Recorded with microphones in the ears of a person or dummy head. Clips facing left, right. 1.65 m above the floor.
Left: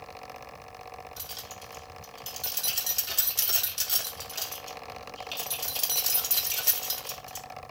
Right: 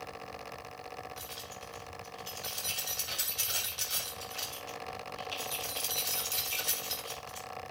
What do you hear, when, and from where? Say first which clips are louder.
1.2 s keys jangling: even; 80° left, 3.5 m